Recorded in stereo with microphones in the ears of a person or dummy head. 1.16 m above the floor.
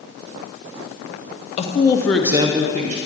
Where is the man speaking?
35° left (ahead or behind), 1.0 m; by 3.0 s 40° right (ahead or behind), 1.1 m.